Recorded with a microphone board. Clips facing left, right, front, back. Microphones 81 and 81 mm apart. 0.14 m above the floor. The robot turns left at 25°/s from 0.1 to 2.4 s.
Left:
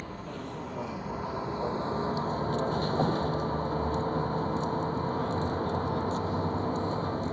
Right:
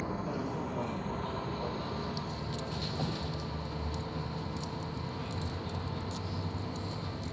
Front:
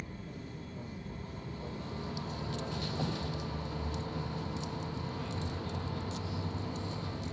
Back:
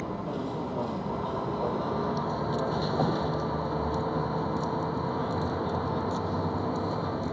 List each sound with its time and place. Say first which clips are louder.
0.0 s a vehicle: right 4 dB, back 13 dB; 165° right; by 7.3 s 140° left